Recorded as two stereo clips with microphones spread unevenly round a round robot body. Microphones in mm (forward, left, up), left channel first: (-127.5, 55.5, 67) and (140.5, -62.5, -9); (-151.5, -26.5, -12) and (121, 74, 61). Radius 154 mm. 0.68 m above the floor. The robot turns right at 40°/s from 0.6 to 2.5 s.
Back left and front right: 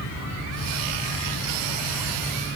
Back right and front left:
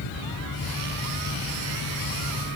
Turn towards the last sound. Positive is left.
No sound to turn to.